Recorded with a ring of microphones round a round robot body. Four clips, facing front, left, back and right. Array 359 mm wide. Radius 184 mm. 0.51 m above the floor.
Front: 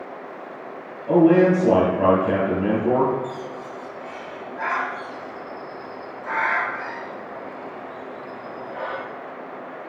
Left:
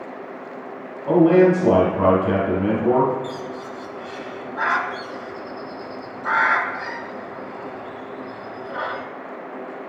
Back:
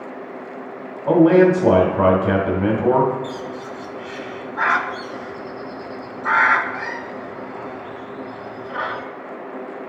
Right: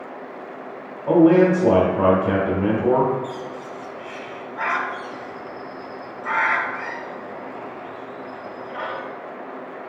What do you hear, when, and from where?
1.1 s a man speaking: 165° right, 2 m
3.2 s a bird: 170° left, 1.2 m